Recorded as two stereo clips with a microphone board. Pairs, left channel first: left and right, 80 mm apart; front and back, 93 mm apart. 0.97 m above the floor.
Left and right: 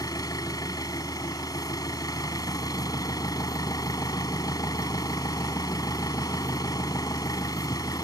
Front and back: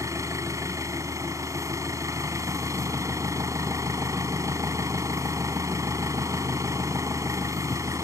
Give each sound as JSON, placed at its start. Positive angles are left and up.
{"t": 0.0, "sound": "an engine running", "azimuth_deg": 125}